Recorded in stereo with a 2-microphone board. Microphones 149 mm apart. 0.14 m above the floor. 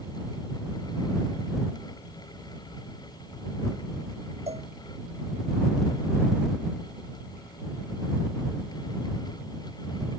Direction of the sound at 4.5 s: 45° right (ahead or behind).